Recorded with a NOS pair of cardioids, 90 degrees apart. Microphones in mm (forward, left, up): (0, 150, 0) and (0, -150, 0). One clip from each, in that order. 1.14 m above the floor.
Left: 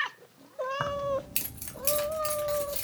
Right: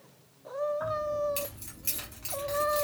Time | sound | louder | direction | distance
0.8 | keys jangling | even | 65° left | 0.6 m